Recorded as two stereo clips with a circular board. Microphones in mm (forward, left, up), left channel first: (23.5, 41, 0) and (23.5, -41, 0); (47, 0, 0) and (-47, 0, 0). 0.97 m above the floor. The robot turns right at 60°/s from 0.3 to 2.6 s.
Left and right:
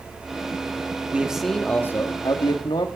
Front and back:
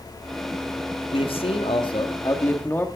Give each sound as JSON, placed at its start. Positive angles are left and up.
{"t": 1.1, "sound": "a man speaking", "azimuth_deg": -20, "distance_m": 1.8}